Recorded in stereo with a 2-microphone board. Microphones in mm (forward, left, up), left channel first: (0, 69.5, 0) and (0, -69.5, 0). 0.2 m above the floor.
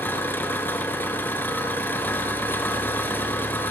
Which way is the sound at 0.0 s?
15° left (ahead or behind).